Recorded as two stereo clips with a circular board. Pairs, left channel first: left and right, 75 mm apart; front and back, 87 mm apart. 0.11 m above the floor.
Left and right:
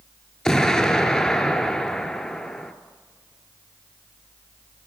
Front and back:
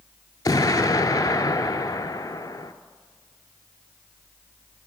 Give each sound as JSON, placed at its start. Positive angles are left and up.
{"t": 0.5, "sound": "an explosion", "azimuth_deg": 10, "distance_m": 0.5}